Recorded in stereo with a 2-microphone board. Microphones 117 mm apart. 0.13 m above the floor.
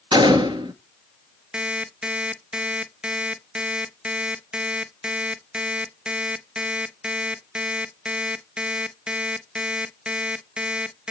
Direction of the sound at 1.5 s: 10° right (ahead or behind).